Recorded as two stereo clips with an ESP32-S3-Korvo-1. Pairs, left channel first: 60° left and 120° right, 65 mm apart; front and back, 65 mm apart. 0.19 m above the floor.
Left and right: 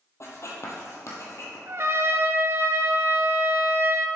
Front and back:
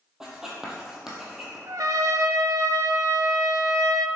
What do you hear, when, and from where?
0.2 s writing: 100° left, 1.5 m
1.7 s a trumpet: 165° right, 0.5 m